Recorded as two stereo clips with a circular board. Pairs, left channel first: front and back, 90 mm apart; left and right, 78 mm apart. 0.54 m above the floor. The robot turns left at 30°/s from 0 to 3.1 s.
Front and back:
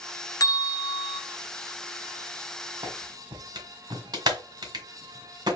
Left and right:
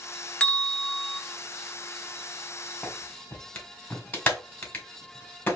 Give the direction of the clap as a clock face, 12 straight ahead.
7 o'clock.